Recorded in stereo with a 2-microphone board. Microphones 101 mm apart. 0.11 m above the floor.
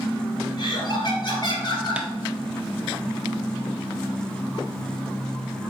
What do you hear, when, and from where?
0.6 s laughter: 40° left (ahead or behind), 1.9 m
2.0 s tapping: 10° right (ahead or behind), 0.5 m